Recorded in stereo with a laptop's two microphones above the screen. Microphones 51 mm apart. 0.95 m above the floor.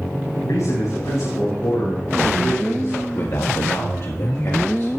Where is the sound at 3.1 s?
55° left (ahead or behind), 1.6 m.